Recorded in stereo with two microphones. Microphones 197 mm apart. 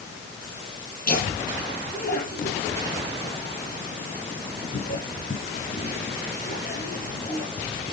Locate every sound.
1.1 s laughter: 55° left (ahead or behind), 9 m